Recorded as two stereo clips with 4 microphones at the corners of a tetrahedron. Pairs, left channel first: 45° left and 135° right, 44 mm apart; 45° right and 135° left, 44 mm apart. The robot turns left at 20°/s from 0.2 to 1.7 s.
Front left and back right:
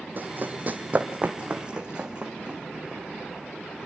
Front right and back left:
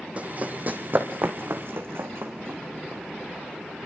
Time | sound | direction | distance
0.2 | running footsteps | 170° right | 2.5 m